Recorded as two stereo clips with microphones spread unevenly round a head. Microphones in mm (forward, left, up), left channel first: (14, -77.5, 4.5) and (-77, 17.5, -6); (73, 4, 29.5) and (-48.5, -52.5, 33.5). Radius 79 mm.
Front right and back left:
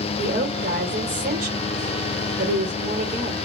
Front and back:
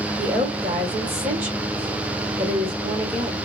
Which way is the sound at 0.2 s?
130° left.